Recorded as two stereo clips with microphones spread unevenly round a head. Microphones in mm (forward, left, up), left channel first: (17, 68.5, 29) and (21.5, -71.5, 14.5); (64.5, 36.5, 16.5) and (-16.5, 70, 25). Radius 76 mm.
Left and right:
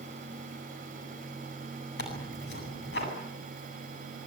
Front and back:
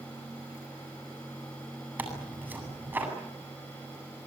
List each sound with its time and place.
2.0 s tearing paper: 90° left, 8.5 m